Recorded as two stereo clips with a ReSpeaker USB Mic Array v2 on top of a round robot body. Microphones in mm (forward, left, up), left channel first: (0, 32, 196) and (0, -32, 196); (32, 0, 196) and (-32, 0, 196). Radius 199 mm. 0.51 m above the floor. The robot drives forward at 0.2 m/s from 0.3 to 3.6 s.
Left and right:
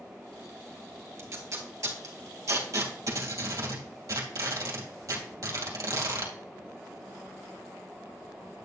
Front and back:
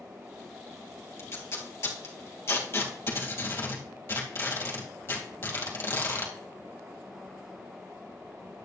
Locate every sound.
1.2 s tape being pulled: 50° right, 3 m; by 6.3 s 55° right, 2.5 m